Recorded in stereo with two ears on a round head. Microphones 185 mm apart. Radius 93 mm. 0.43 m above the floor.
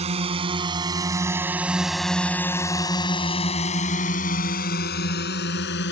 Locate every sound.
0.0 s a drone: 35° right (ahead or behind); by 5.9 s 60° left (ahead or behind)